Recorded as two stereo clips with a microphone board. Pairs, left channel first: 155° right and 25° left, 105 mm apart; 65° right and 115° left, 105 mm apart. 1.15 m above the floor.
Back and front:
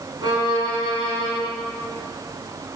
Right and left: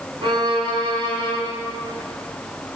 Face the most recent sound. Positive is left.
turn(degrees=70)